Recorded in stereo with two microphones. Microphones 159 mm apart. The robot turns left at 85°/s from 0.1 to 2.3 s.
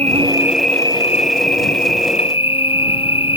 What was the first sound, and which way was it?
An insect, 135° right.